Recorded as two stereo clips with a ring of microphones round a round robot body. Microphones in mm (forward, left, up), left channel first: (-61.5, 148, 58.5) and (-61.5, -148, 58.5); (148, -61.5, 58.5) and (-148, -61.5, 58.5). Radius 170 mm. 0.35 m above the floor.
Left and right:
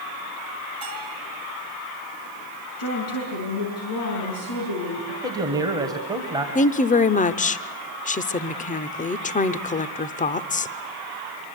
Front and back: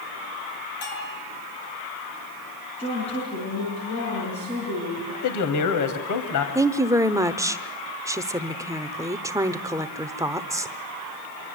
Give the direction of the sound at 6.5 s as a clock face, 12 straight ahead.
8 o'clock.